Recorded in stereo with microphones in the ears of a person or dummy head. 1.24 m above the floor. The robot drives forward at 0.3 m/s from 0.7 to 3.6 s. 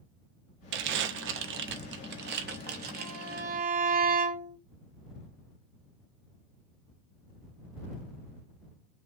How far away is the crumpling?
About 0.8 m.